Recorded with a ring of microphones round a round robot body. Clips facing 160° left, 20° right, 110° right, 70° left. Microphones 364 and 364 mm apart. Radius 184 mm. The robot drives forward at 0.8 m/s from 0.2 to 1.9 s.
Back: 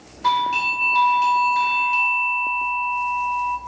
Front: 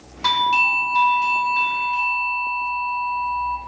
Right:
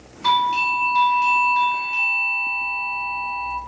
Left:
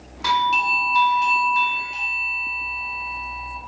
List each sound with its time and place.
0.2 s a doorbell: 10° left, 1.2 m; by 3.6 s 170° left, 1.1 m